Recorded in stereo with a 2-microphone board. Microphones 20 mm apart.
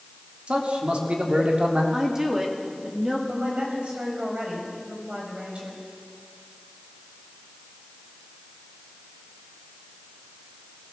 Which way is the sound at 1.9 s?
25° right (ahead or behind).